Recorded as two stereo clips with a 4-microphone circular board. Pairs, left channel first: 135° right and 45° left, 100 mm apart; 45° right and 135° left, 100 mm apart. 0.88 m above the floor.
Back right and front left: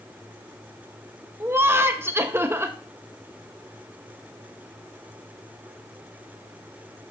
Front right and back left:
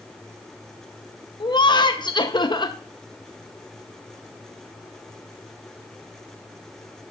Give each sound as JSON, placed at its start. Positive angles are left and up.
{"t": 1.4, "sound": "laughter", "azimuth_deg": -15, "distance_m": 0.8}